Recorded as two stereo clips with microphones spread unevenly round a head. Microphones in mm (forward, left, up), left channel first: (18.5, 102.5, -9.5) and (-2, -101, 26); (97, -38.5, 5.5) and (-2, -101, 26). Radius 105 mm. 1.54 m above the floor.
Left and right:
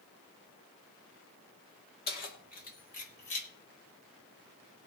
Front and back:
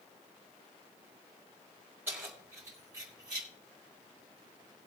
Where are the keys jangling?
135° left, 2.5 m; by 3.5 s 145° left, 2 m.